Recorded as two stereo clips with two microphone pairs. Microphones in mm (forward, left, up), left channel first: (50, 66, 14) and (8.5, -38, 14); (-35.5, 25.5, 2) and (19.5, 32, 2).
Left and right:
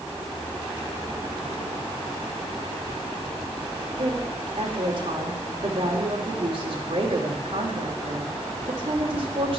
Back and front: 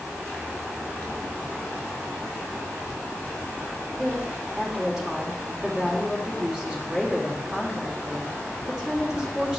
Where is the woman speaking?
70° right, 2.5 m.